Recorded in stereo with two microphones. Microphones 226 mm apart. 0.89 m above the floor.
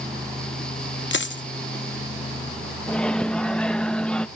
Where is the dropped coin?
55° left (ahead or behind).